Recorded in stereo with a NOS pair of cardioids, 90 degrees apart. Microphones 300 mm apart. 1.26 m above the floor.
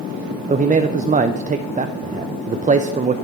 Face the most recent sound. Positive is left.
turn(degrees=-25)